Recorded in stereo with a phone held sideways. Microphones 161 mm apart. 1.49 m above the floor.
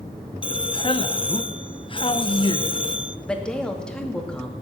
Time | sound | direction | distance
0.4 | a man speaking | 35° left (ahead or behind) | 0.8 m
3.3 | a woman speaking | 5° left (ahead or behind) | 2 m